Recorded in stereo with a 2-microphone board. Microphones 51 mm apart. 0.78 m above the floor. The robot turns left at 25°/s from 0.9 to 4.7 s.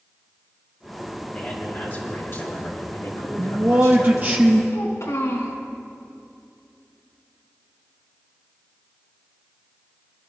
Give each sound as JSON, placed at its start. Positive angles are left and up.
{"t": 1.3, "sound": "a man speaking", "azimuth_deg": 150, "distance_m": 5.0}
{"t": 3.4, "sound": "a man speaking", "azimuth_deg": -120, "distance_m": 0.9}
{"t": 4.7, "sound": "a child speaking", "side_deg": 75, "distance_m": 4.0}